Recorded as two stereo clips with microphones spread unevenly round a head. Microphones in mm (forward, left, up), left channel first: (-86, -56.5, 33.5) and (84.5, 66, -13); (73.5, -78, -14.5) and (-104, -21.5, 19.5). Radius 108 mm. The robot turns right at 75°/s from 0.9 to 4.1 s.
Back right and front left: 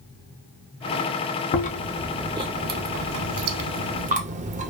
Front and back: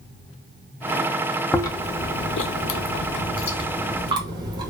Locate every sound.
1.5 s chewing: 100° right, 0.6 m; by 4.7 s 90° left, 0.6 m